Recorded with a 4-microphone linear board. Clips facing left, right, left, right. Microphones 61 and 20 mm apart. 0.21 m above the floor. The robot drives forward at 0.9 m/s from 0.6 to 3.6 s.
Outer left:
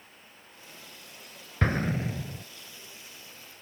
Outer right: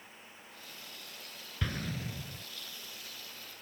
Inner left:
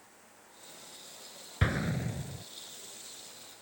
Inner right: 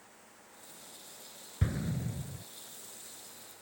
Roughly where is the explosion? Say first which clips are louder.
Outer left 10 dB, inner left 4 dB; left.